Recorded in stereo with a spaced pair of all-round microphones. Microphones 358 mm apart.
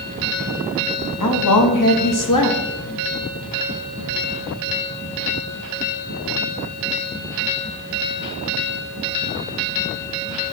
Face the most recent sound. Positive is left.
turn(degrees=60)  # may be behind; listen again after turning